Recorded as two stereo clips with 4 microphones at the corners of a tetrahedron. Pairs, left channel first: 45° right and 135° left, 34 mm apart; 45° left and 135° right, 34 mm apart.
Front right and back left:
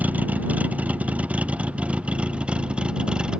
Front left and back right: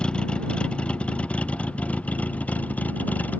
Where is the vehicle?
105° left; by 3.4 s 80° left.